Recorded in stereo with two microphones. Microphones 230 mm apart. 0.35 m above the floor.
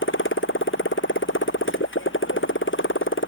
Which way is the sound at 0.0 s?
65° left (ahead or behind).